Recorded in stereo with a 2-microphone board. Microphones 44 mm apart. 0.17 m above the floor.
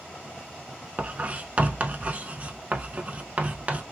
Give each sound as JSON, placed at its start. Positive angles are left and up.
{"t": 1.0, "sound": "writing", "side_deg": -35, "distance_m": 0.5}